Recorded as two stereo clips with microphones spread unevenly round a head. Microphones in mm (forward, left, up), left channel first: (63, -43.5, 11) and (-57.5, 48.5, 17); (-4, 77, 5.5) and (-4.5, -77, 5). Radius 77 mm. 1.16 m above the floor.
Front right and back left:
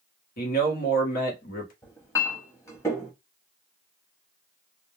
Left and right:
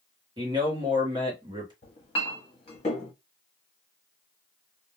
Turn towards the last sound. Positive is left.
turn(degrees=35)